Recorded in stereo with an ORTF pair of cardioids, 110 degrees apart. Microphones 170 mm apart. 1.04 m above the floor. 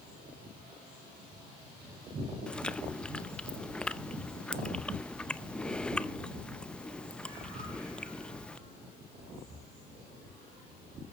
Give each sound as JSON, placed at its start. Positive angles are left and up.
{"t": 2.5, "sound": "chewing", "azimuth_deg": 5, "distance_m": 0.7}